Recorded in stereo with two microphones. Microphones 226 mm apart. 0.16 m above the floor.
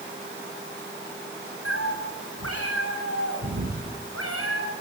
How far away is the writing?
I don't hear writing.